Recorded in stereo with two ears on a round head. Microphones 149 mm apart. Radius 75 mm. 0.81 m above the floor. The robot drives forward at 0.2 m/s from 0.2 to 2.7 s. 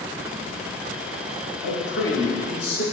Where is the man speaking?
75° left (ahead or behind), 2.5 m.